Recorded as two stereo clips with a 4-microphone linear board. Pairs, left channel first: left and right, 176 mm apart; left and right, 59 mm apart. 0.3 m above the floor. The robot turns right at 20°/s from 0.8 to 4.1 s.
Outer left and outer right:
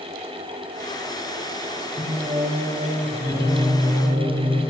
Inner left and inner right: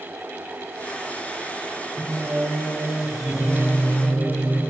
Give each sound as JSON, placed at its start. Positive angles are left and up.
{"t": 2.0, "sound": "singing", "azimuth_deg": -40, "distance_m": 5.0}